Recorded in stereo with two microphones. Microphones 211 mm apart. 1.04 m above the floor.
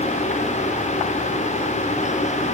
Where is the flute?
I don't hear a flute.